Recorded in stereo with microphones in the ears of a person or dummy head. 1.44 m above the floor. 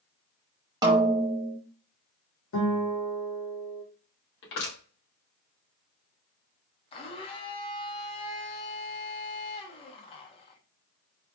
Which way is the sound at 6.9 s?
30° left (ahead or behind).